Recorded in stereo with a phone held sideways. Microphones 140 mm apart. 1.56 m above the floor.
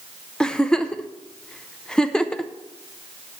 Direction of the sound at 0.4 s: 5° left (ahead or behind).